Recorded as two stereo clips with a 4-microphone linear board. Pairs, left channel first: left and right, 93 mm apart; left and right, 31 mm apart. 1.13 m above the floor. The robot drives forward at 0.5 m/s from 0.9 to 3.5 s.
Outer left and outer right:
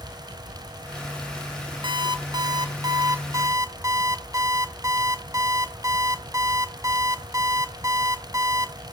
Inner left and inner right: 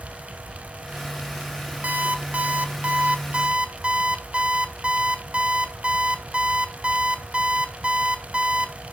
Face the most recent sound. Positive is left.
turn(degrees=-35)  # may be behind; listen again after turning